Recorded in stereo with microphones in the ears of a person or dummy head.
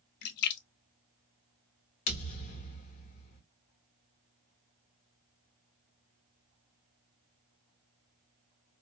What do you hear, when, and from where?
0.2 s a splash: 60° left (ahead or behind), 0.7 m
2.1 s a thud: 40° left (ahead or behind), 1.3 m